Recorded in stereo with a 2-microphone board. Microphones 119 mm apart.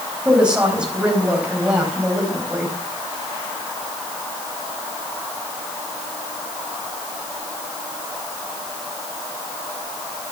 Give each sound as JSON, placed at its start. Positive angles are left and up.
{"t": 0.2, "sound": "a woman speaking", "side_deg": -10, "distance_m": 4.5}